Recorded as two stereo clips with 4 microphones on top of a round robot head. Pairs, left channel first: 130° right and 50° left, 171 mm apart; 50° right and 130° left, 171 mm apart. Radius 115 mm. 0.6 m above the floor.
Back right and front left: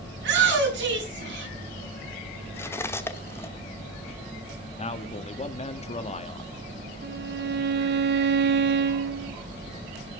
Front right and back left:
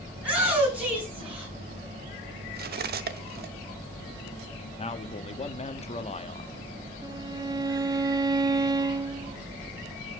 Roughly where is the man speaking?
Right.